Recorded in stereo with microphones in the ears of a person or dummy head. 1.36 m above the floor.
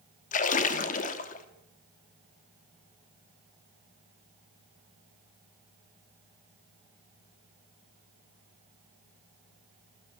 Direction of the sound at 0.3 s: 45° left (ahead or behind).